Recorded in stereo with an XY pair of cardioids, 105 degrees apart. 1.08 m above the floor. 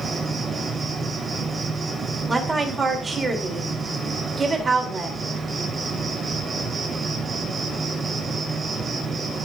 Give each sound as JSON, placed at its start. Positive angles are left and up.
{"t": 0.0, "sound": "an insect", "azimuth_deg": -35, "distance_m": 2.5}
{"t": 2.3, "sound": "a woman speaking", "azimuth_deg": -25, "distance_m": 3.0}